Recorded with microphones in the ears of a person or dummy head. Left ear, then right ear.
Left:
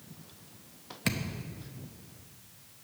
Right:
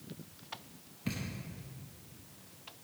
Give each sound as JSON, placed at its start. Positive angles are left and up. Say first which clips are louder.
{"t": 1.1, "sound": "a thud", "louder": "left 7 dB", "side_deg": 35, "distance_m": 0.8}